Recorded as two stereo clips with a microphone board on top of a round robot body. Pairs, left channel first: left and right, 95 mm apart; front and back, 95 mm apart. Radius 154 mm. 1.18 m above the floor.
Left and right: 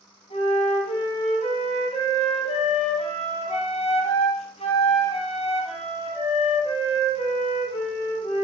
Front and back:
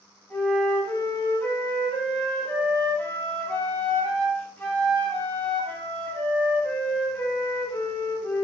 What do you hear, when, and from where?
0.3 s a flute: 70° left, 1.5 m